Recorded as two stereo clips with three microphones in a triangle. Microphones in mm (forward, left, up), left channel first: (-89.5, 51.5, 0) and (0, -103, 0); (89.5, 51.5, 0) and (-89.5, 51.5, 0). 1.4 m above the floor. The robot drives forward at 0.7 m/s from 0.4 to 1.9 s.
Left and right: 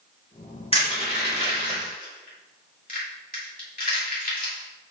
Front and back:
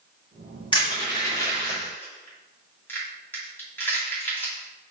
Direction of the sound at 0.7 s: 60° left.